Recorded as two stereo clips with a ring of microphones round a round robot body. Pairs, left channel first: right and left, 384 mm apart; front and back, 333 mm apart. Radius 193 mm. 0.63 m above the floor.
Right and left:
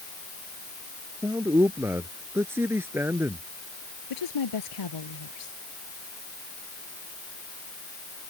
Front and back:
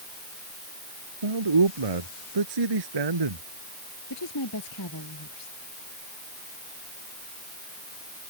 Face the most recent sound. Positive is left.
turn(degrees=-50)